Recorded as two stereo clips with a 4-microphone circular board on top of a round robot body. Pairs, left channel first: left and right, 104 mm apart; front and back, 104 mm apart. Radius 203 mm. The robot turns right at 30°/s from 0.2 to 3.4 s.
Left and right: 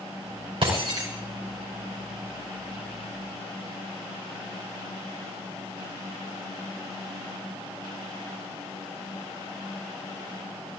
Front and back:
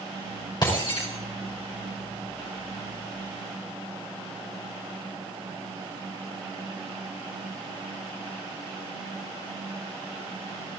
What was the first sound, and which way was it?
Breaking glass, 50° right.